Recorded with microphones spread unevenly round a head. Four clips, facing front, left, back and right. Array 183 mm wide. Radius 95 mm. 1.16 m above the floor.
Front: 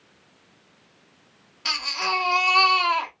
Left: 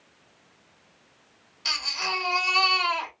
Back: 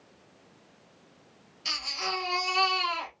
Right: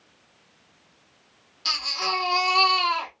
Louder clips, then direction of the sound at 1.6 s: Right 3 dB, front 7 dB; 15° right.